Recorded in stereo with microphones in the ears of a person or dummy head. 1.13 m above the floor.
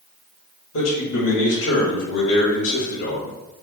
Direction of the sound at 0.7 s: 85° left.